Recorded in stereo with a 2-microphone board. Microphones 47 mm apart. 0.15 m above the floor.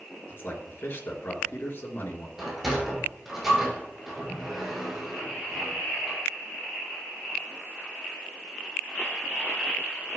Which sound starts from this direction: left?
A man speaking, at 0.3 s.